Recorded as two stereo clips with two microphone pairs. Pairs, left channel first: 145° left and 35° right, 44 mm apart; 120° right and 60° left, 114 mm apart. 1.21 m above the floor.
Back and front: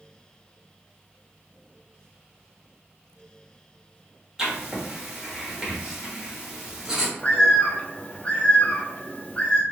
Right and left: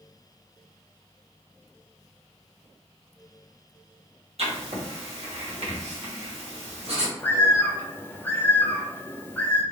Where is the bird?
Straight behind, 0.5 m.